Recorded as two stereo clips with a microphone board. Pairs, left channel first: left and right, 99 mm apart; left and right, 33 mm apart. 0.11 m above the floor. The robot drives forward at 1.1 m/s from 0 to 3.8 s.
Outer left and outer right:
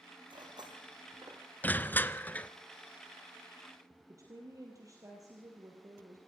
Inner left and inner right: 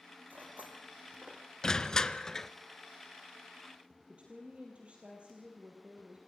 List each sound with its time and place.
0.3 s cutlery clinking: 50° right (ahead or behind), 3 m; by 1.4 s 40° right (ahead or behind), 4 m
1.6 s crushing: 20° left (ahead or behind), 0.8 m; by 2.5 s 15° left (ahead or behind), 1.0 m
4.1 s a woman speaking: 35° right (ahead or behind), 3.5 m